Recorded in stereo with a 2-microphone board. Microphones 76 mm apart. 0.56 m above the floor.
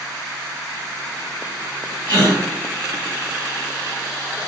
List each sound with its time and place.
2.1 s a gasp: 75° left (ahead or behind), 1.9 m